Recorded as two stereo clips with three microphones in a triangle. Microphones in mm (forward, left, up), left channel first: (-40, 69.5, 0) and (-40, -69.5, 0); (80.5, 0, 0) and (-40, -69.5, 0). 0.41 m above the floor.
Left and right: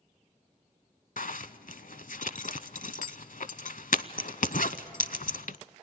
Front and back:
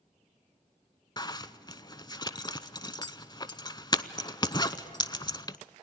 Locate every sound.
1.2 s a zipper: 85° left, 0.6 m